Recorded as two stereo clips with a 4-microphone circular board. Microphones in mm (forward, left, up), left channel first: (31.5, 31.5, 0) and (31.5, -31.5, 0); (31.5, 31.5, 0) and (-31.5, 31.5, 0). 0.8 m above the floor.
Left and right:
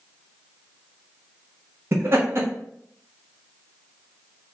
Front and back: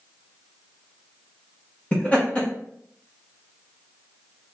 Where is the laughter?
60° right, 0.9 m.